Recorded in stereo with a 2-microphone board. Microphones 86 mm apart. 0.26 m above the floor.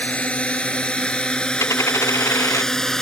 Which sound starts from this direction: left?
A dropped coin, at 1.6 s.